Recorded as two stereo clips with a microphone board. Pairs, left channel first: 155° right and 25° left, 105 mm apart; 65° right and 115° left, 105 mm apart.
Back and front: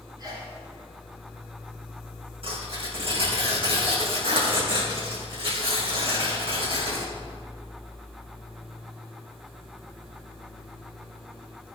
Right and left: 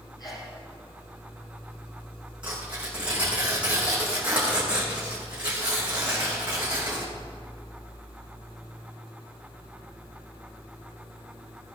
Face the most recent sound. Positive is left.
turn(degrees=35)